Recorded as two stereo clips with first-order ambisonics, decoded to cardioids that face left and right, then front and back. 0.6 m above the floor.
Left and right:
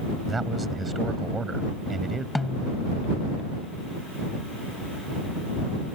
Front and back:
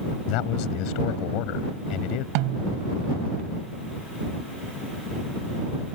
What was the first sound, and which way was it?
A man speaking, 15° right.